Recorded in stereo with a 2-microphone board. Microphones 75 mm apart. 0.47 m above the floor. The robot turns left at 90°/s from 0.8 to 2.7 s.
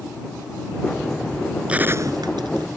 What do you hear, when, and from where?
1.7 s a gunshot: 15° right; by 2.7 s 105° right